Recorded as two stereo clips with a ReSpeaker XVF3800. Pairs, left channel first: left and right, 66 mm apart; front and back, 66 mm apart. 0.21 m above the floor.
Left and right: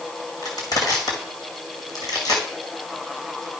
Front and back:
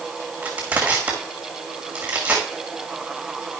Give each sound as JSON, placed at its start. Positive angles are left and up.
{"t": 0.4, "sound": "crushing", "azimuth_deg": 110, "distance_m": 1.9}